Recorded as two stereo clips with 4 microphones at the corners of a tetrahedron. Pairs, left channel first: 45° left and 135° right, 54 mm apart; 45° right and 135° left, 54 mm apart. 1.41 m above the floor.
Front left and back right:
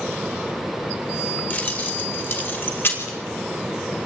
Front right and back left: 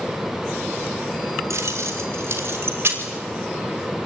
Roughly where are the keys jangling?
Left.